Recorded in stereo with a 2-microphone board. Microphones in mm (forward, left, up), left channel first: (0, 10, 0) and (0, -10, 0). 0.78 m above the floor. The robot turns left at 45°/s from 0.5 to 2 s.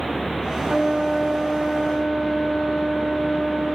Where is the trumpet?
120° right, 1.5 m; by 3.8 s straight behind, 1.5 m.